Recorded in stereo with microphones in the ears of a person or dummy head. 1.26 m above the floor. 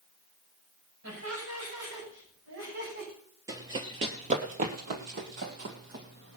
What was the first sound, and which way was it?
Laughter, 85° right.